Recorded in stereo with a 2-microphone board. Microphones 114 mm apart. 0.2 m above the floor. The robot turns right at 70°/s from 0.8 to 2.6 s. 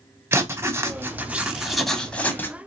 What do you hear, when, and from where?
0.3 s writing: 20° right (ahead or behind), 0.8 m; by 2.6 s 20° left (ahead or behind), 0.8 m